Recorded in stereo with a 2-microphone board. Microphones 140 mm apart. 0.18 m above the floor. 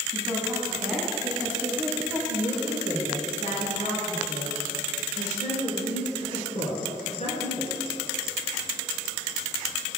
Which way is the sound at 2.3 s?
50° left (ahead or behind).